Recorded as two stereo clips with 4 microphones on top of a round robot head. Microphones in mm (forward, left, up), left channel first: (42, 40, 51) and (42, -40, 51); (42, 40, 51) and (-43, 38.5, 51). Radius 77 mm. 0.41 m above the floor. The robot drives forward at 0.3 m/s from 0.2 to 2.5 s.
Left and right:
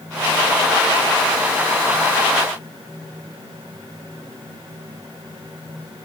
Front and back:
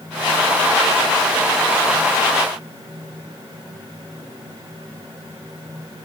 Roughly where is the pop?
I don't hear a pop.